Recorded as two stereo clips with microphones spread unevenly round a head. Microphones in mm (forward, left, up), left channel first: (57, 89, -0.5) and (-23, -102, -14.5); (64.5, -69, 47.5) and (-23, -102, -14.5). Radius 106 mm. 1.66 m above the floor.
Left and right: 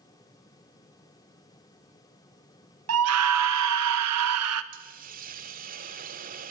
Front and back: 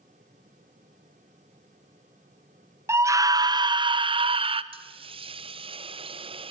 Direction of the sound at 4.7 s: 110° right.